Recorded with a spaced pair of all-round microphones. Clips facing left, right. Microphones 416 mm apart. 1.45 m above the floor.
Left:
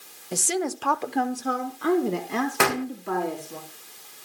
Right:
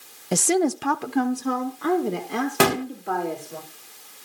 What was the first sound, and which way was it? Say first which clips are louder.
A woman speaking: right 7 dB; 85° right.